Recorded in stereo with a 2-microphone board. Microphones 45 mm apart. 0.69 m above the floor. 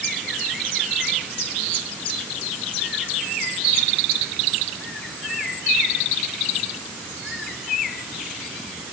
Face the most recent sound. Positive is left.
No sound to turn to.